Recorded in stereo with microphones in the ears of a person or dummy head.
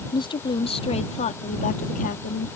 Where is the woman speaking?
15° left (ahead or behind); by 2.5 s 45° left (ahead or behind).